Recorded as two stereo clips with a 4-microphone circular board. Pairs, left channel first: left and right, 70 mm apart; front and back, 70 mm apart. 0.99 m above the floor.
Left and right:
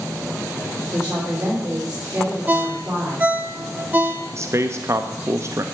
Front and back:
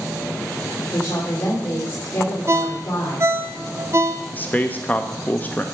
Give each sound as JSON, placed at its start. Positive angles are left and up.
{"t": 0.9, "sound": "a woman speaking", "azimuth_deg": -20, "distance_m": 4.0}
{"t": 2.5, "sound": "a ringtone", "azimuth_deg": -150, "distance_m": 0.7}
{"t": 4.3, "sound": "a man speaking", "azimuth_deg": -60, "distance_m": 0.6}